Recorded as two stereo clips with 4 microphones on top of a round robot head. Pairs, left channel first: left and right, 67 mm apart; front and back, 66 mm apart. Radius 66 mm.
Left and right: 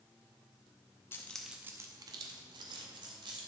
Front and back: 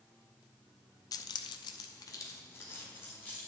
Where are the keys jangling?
25° left, 0.5 m; by 3.4 s 70° right, 1.7 m.